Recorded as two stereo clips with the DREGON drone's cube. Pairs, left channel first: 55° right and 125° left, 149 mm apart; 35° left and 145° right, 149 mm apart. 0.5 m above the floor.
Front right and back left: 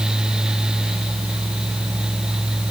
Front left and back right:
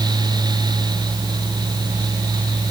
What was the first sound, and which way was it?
Only background noise.